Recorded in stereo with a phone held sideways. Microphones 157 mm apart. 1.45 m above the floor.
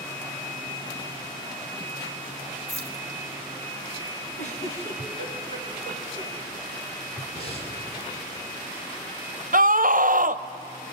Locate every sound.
2.7 s keys jangling: 45° left (ahead or behind), 2.5 m
4.4 s a giggle: 50° left (ahead or behind), 3.5 m
7.3 s breathing: 40° left (ahead or behind), 5 m
9.5 s a scream: 60° right (ahead or behind), 0.8 m